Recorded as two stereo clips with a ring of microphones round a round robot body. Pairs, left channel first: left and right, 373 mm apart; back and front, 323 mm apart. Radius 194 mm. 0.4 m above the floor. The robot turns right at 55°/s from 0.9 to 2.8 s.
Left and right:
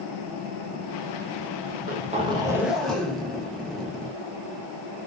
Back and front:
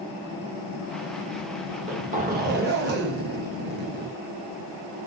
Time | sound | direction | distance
1.7 | a zipper | 60° right | 0.7 m